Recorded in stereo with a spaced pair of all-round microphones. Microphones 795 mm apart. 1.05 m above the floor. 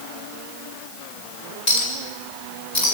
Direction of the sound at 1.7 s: 55° left (ahead or behind).